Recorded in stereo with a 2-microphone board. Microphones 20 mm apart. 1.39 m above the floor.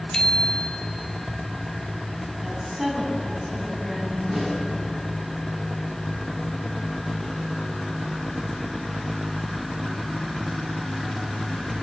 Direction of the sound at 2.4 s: 5° right (ahead or behind).